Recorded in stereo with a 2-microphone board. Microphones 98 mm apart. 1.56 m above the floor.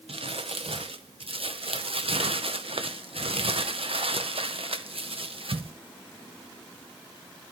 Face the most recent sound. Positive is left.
turn(degrees=-70)  # may be behind; listen again after turning